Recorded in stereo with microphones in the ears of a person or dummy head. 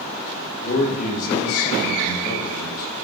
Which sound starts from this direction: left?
A man speaking, at 0.6 s.